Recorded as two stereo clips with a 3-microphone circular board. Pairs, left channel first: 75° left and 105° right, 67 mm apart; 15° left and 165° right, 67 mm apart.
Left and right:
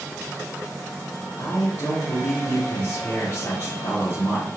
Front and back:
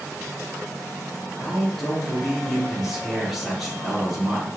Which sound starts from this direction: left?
A man speaking, at 1.4 s.